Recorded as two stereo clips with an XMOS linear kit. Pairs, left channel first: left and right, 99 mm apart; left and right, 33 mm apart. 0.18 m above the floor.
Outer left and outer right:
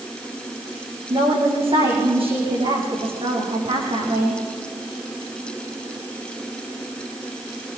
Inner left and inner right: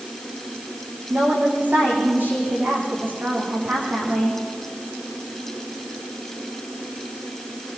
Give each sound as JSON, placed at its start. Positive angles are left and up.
{"t": 1.1, "sound": "a woman speaking", "side_deg": -70, "distance_m": 8.5}